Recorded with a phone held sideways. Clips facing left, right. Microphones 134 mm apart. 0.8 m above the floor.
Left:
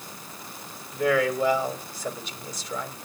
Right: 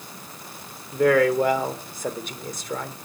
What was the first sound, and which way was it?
A man speaking, 50° right (ahead or behind).